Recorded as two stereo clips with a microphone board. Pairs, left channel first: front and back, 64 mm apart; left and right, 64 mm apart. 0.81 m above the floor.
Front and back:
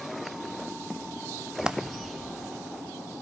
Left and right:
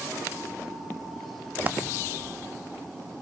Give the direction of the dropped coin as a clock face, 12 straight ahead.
4 o'clock.